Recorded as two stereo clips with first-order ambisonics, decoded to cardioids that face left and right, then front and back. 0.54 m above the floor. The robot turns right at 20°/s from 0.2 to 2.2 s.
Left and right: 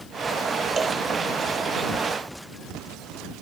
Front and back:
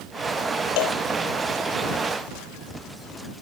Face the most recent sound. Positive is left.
turn(degrees=10)